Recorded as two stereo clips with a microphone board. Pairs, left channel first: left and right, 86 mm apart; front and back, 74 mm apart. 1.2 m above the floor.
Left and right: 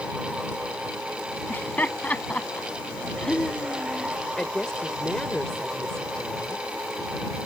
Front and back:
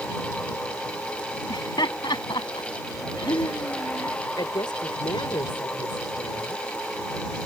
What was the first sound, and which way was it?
Laughter, 20° left.